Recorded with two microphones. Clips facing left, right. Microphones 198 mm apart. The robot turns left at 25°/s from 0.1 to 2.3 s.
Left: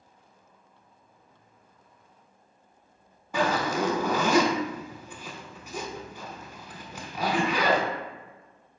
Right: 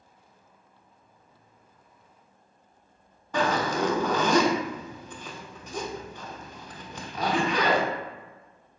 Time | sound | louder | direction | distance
3.3 | a zipper | even | 10° left (ahead or behind) | 0.6 m